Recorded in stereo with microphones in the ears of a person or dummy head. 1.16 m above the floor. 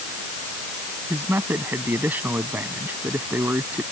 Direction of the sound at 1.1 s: 10° right (ahead or behind).